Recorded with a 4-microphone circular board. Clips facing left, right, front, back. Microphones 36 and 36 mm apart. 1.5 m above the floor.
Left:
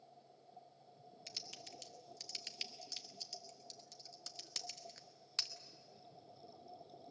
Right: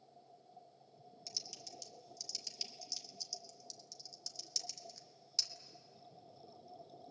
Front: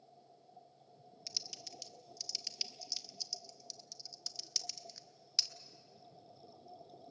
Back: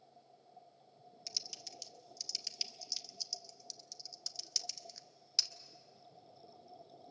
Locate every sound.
1.3 s typing on a keyboard: 90° left, 1.0 m